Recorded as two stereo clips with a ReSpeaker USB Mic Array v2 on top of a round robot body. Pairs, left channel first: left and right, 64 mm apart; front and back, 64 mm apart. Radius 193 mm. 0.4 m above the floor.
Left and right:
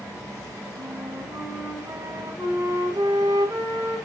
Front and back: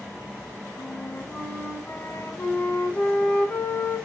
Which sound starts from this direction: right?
A flute, at 0.8 s.